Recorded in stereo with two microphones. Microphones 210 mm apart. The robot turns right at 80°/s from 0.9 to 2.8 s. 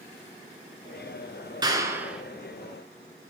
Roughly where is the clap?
Centre.